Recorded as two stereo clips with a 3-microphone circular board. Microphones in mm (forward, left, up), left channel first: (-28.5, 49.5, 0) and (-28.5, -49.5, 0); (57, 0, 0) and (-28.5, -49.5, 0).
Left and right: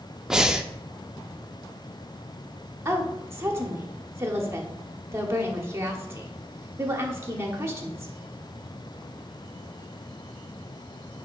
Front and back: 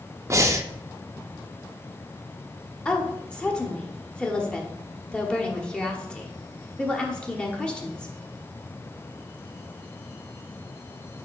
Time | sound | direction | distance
0.3 | breathing | 170° right | 0.6 m
2.9 | a woman speaking | 45° right | 1.3 m